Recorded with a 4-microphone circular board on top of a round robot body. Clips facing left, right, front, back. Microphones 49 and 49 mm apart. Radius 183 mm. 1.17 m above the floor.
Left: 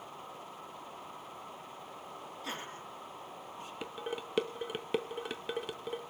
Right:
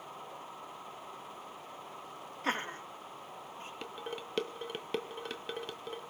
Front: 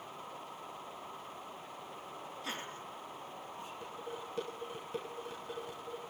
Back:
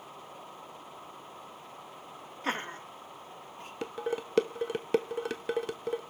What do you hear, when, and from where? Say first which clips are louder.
2.4 s laughter: right 9 dB, back 10 dB; 135° right, 2 m; by 3.7 s 140° right, 3.5 m
3.8 s dishes clattering: left 3 dB, back 13 dB; 175° left, 0.6 m